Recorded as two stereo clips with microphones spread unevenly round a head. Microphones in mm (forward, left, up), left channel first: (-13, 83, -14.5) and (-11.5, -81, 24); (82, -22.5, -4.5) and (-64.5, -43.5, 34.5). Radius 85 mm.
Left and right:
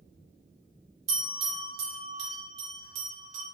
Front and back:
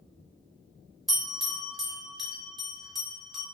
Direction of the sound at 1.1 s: 95° right.